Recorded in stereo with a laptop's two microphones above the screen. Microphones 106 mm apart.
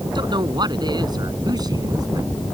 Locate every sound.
0.1 s a woman speaking: 45° right (ahead or behind); by 2.3 s 35° right (ahead or behind)